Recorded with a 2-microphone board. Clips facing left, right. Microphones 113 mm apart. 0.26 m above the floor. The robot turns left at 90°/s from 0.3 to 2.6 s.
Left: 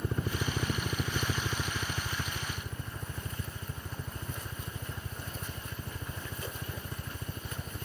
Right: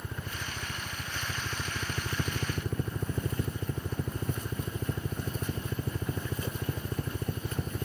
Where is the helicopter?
45° left (ahead or behind); by 7.9 s 65° right (ahead or behind).